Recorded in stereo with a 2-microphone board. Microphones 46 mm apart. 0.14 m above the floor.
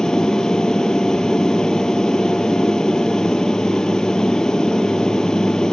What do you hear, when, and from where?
0.0 s an aircraft: 15° left (ahead or behind)